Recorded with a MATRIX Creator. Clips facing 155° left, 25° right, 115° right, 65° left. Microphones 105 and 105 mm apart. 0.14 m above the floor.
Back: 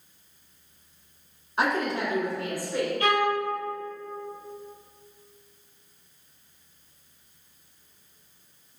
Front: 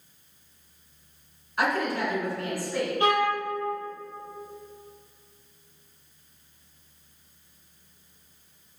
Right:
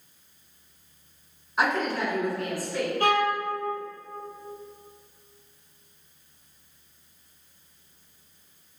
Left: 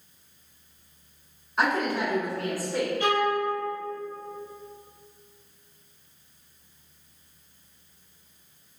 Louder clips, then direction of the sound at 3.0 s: Front 1 dB, right 2 dB; 85° right.